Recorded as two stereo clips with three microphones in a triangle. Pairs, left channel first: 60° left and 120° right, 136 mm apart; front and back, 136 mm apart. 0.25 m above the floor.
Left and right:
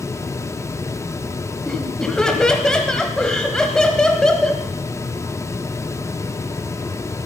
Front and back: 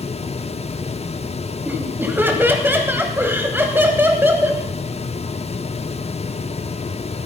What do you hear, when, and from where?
1.6 s laughter: 135° left, 1.1 m